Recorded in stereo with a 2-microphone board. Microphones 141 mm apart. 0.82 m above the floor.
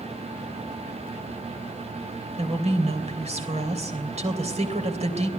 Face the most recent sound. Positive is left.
turn(degrees=-45)  # may be behind; listen again after turning